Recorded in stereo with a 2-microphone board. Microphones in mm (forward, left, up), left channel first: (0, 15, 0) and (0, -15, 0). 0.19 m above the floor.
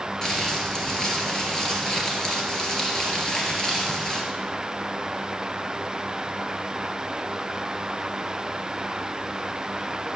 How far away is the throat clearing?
No throat clearing in this recording.